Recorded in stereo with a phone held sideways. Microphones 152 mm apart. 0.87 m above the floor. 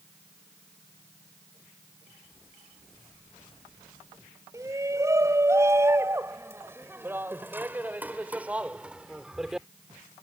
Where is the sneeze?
I don't hear a sneeze.